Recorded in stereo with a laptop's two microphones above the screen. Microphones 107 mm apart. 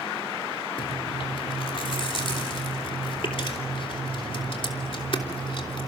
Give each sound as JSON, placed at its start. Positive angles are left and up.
{"t": 0.8, "sound": "chewing", "side_deg": 55, "distance_m": 3.0}